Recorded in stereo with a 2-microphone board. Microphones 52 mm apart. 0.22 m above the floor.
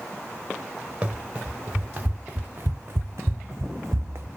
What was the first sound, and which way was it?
Running footsteps, 20° right (ahead or behind).